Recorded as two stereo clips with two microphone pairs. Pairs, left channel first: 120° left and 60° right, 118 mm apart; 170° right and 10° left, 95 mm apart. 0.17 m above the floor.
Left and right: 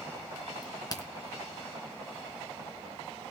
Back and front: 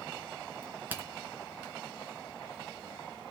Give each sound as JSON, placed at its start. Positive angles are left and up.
{"t": 0.6, "sound": "a crack", "azimuth_deg": 75, "distance_m": 3.0}